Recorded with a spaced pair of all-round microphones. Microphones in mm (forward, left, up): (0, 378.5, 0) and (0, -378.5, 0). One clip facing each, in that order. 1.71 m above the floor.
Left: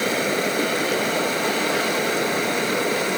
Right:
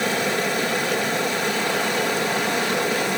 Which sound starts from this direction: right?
Running water, at 0.0 s.